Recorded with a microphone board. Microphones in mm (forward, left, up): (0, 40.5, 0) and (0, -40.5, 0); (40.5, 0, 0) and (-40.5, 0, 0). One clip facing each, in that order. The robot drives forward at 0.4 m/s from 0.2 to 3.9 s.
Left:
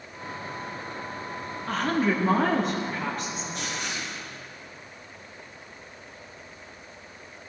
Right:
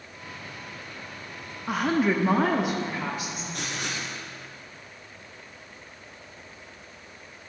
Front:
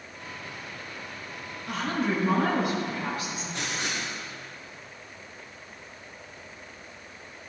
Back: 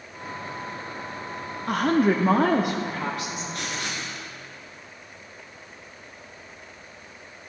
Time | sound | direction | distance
1.7 | a woman speaking | 165° right | 0.7 m
3.5 | writing | 65° right | 3.5 m